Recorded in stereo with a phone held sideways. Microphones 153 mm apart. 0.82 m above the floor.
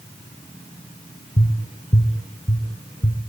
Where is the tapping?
40° left (ahead or behind), 2.5 m.